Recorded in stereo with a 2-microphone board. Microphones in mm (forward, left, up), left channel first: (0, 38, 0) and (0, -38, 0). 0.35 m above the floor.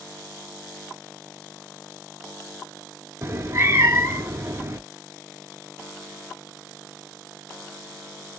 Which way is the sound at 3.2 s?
35° right (ahead or behind).